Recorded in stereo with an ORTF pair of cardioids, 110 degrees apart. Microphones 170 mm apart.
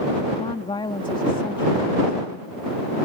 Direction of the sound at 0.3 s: 30° left.